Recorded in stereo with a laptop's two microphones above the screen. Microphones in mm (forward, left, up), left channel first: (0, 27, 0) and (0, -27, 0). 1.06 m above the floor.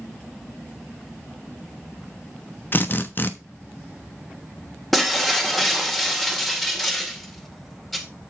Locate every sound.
2.7 s a drill: 40° left (ahead or behind), 1.0 m
4.9 s breaking glass: 5° left (ahead or behind), 2 m